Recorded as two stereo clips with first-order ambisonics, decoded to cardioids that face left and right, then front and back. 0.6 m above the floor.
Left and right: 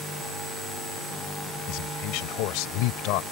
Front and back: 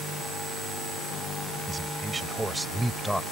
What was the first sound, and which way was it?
A man speaking, 110° left.